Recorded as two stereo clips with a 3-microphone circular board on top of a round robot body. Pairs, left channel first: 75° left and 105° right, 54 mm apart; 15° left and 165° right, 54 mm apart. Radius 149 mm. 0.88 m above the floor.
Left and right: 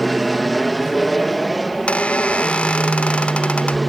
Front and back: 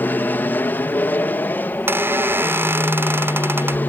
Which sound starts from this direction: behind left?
A squeak, at 1.7 s.